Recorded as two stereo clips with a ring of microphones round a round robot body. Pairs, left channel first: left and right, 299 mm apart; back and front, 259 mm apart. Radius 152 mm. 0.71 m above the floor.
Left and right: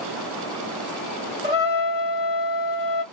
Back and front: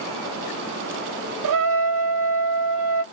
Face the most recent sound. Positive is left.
turn(degrees=-20)